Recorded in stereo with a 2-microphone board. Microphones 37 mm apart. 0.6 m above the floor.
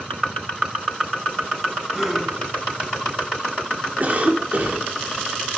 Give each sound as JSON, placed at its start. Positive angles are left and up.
{"t": 1.9, "sound": "a gasp", "side_deg": 0, "distance_m": 3.5}
{"t": 4.0, "sound": "a cough", "side_deg": -45, "distance_m": 1.8}